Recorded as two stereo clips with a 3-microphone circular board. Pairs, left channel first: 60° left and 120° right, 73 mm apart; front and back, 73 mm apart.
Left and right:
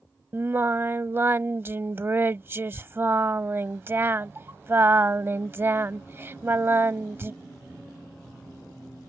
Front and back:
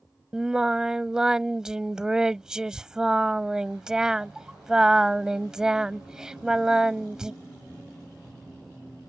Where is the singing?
105° right.